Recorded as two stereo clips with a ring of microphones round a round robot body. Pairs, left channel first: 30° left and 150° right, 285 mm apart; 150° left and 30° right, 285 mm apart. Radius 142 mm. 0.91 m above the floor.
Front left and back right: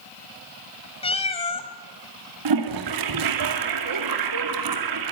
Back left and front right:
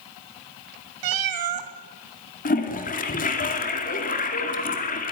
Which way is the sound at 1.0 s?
40° right.